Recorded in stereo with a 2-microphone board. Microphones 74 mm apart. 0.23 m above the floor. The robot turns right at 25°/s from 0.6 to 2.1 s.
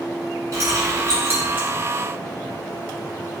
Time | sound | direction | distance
0.5 | keys jangling | 45° right (ahead or behind) | 1.7 m